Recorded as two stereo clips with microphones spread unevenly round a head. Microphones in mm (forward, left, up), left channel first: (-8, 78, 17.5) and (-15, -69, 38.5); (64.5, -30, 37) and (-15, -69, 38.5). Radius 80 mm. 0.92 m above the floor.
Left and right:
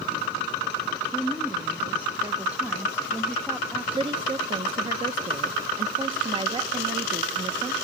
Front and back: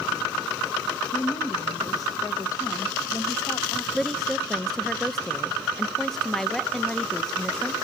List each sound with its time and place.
1.1 s a woman speaking: 5° right, 1.1 m
4.0 s a woman speaking: 55° right, 0.6 m